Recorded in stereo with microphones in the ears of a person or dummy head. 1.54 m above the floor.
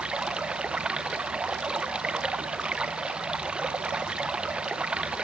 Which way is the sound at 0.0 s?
10° right (ahead or behind).